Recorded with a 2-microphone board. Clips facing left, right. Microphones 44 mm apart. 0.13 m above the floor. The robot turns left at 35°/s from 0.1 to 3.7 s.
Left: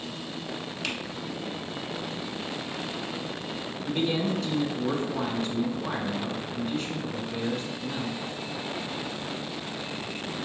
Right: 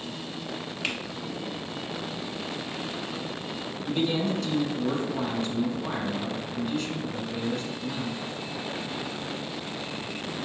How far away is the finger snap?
About 1.0 m.